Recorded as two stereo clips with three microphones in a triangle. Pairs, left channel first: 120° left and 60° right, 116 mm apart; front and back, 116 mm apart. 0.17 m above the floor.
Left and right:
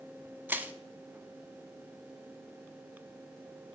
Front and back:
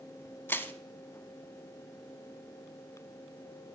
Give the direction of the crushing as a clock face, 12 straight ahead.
1 o'clock.